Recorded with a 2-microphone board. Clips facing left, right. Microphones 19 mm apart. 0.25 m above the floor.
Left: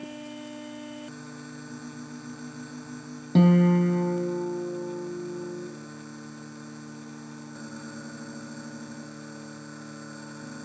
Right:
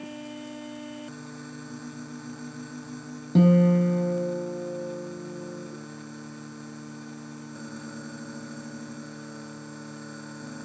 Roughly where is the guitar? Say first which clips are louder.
Right 1 dB; left.